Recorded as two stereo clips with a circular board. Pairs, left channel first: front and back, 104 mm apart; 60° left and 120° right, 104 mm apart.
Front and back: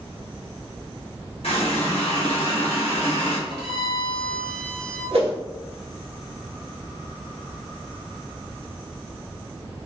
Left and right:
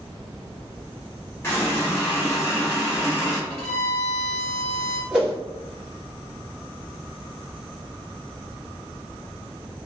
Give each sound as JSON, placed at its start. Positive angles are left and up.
{"t": 1.4, "sound": "a running tap", "azimuth_deg": -5, "distance_m": 1.1}
{"t": 3.5, "sound": "a violin", "azimuth_deg": -15, "distance_m": 1.5}
{"t": 5.1, "sound": "a whoosh", "azimuth_deg": 160, "distance_m": 1.1}